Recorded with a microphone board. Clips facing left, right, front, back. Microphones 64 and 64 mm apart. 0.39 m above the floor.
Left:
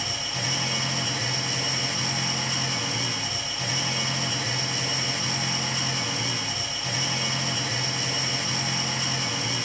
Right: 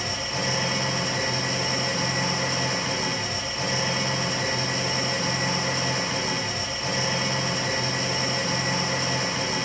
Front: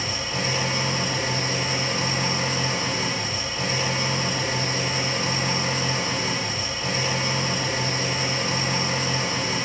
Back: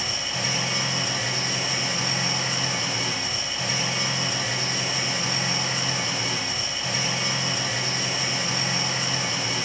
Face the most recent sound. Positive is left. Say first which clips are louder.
# right 3 dB, front 2 dB
turn(degrees=-40)